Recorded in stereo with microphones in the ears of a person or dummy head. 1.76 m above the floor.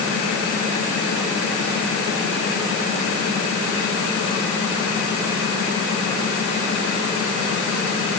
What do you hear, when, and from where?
Only background noise.